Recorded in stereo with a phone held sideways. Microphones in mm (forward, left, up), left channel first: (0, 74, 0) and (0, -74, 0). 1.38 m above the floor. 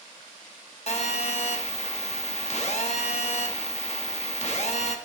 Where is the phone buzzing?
50° left (ahead or behind), 1.0 m.